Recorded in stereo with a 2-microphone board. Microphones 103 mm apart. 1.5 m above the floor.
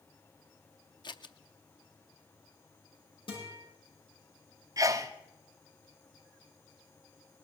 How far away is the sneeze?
About 0.7 m.